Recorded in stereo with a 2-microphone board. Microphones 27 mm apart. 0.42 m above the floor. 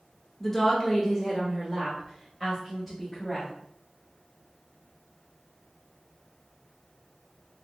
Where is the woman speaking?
15° left (ahead or behind), 0.7 m; by 3.5 s 5° right (ahead or behind), 2 m.